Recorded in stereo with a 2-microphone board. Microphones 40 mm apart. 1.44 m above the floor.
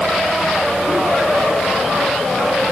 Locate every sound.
Only background noise.